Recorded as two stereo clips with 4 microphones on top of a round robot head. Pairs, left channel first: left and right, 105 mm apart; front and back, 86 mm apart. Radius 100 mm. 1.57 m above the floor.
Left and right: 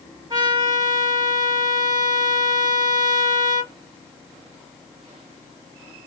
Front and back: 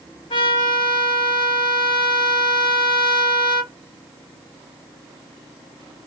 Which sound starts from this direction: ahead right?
A trumpet, at 0.3 s.